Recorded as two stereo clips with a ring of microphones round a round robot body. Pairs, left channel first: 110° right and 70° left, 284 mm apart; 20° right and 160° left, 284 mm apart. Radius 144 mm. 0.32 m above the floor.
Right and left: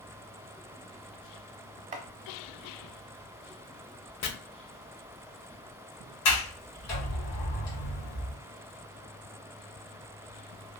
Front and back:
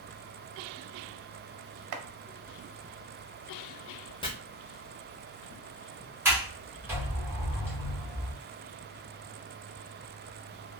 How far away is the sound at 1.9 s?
About 0.6 m.